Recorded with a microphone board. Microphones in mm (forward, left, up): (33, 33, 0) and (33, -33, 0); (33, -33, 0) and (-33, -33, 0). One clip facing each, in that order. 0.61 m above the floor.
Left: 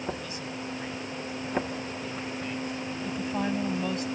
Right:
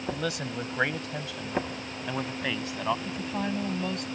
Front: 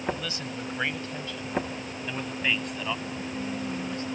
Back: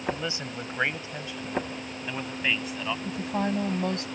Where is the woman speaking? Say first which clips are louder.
Left 2 dB, back 5 dB; 175° left.